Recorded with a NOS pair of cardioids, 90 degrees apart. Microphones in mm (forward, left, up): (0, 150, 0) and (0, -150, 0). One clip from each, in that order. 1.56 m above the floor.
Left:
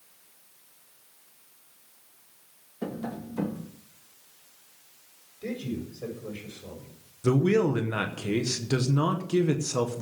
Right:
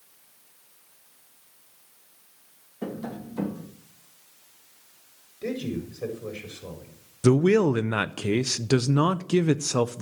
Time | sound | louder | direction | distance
2.8 | tapping | even | straight ahead | 1.8 m
5.4 | a man speaking | right 4 dB | 35° right | 7.5 m
7.2 | a man speaking | right 4 dB | 50° right | 0.7 m